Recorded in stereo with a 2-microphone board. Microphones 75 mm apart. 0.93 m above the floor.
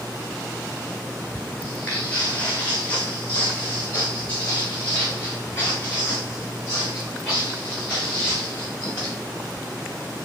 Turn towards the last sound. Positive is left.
turn(degrees=25)  # may be behind; listen again after turning